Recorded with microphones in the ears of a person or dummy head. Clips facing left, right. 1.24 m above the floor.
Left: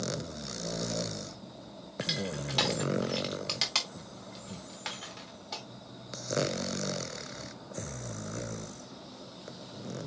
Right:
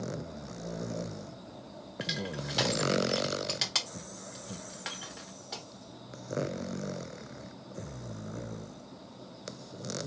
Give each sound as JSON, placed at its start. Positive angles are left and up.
{"t": 2.0, "sound": "crushing", "side_deg": -10, "distance_m": 0.8}